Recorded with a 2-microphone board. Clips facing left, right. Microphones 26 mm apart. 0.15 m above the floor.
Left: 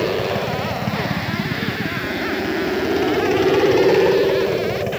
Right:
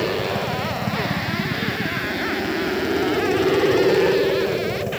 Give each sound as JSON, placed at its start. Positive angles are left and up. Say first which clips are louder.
{"t": 0.0, "sound": "a helicopter", "louder": "left 2 dB", "side_deg": 30}